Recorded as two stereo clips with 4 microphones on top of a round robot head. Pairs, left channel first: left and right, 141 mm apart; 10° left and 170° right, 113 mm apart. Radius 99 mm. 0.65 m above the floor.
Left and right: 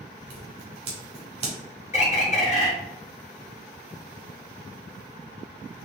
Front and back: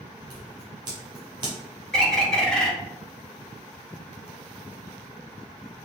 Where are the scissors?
125° right, 0.5 m.